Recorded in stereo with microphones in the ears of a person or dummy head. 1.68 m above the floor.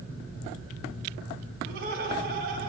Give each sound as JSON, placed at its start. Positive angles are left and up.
{"t": 1.6, "sound": "laughter", "side_deg": -60, "distance_m": 4.0}